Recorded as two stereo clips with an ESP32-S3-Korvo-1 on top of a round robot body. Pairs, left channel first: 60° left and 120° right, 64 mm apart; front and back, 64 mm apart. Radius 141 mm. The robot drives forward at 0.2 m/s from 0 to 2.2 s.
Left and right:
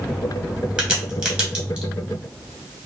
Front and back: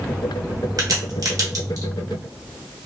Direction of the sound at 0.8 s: 165° left.